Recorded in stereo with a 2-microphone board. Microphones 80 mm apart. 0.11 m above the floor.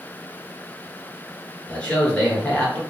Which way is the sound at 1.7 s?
15° left (ahead or behind).